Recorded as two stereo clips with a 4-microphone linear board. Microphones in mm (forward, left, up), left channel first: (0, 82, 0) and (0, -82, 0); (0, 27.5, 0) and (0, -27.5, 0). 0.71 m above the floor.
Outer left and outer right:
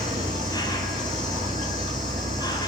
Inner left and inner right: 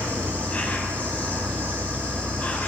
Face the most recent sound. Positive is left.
turn(degrees=25)  # may be behind; listen again after turning